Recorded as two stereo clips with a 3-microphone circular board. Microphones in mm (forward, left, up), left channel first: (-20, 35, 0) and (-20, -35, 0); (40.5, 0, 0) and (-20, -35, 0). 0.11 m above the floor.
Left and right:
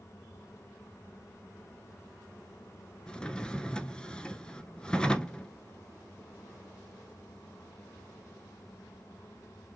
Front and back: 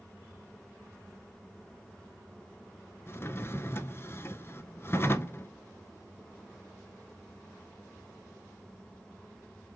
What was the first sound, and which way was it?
A drawer, 20° left.